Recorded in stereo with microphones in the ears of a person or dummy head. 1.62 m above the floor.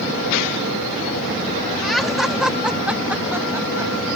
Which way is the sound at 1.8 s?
Centre (ahead or behind).